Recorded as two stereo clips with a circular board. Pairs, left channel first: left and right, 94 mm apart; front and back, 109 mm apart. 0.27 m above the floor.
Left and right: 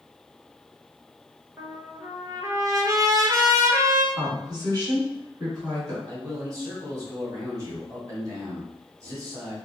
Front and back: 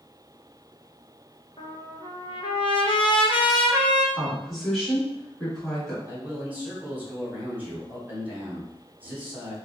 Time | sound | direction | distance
1.6 | a trumpet | 35° right | 0.7 m
4.2 | a woman speaking | 90° right | 2.0 m
6.1 | a man speaking | 115° right | 1.5 m